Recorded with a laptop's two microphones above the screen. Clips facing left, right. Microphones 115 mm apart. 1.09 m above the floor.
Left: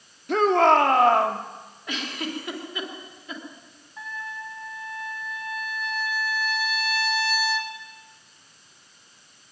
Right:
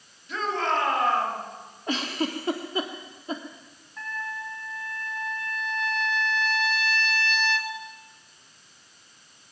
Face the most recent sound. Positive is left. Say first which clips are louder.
# right 1 dB
turn(degrees=10)  # may be behind; listen again after turning